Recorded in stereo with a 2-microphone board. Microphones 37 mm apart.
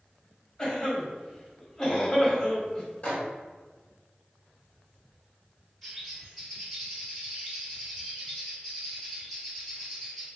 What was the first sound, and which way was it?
A cough, 20° left (ahead or behind).